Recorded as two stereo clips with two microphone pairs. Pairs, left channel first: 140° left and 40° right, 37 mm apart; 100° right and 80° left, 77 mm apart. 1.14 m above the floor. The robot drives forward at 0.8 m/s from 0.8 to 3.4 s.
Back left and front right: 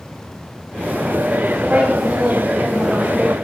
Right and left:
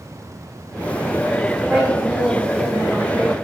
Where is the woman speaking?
5° right, 1.8 m; by 3.4 s 10° right, 0.6 m.